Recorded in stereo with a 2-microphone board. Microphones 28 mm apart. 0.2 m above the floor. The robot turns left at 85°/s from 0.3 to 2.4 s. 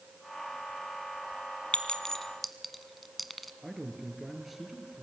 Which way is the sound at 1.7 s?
40° left (ahead or behind).